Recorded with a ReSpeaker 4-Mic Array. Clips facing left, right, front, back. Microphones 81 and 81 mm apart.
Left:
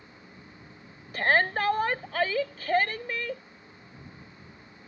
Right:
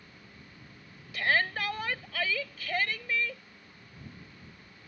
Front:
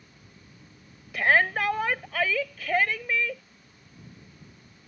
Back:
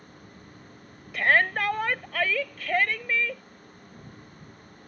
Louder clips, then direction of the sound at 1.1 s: Left 4 dB, even; 90° left.